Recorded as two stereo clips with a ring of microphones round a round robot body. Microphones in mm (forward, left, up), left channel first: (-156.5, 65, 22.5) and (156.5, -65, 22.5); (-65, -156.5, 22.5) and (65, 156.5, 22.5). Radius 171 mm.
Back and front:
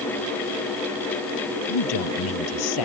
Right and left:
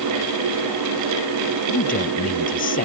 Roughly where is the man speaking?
Behind.